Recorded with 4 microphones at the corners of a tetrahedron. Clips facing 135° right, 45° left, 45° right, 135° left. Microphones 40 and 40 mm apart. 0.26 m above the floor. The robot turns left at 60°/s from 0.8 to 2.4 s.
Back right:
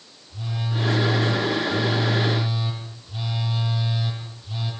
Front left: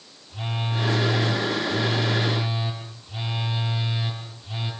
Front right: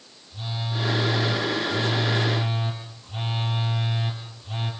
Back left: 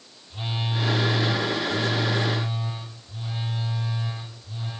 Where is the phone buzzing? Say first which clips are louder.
Front left 1 dB, back left 2 dB; 90° left, 7.5 m; by 4.7 s 10° right, 7.5 m.